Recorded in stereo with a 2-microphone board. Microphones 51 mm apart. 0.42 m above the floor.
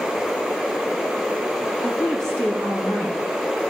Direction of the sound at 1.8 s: 70° right (ahead or behind).